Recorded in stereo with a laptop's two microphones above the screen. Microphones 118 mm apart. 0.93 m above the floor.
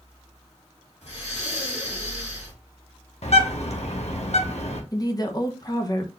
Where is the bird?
65° left (ahead or behind), 1.0 m.